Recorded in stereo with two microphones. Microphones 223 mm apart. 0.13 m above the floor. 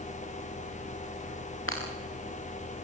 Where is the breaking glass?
70° left (ahead or behind), 5.5 m.